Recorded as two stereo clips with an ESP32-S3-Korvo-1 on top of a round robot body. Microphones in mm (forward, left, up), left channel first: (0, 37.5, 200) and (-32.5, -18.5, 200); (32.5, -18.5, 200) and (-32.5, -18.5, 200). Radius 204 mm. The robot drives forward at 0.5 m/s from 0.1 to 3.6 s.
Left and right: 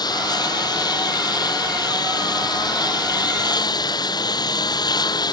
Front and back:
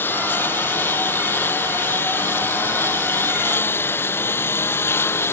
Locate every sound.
0.0 s a lawn mower: 60° left; by 5.3 s 55° left